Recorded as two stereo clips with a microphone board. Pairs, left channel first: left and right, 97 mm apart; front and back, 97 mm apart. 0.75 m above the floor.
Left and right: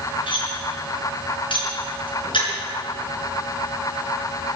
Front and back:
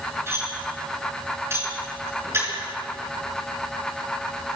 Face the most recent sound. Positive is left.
turn(degrees=120)